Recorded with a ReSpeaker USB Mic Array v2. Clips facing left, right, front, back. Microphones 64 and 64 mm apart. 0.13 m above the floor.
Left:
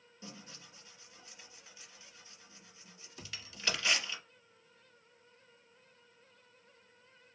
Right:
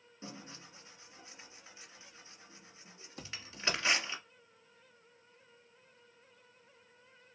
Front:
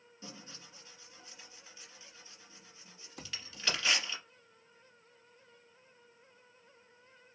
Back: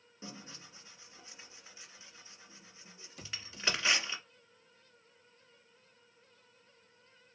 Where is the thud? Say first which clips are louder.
Right 2 dB, even; 45° right, 2.5 m.